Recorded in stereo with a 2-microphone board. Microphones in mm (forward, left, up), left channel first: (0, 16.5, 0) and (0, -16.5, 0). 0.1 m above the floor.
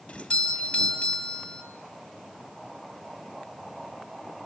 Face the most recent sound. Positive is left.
turn(degrees=25)  # may be behind; listen again after turning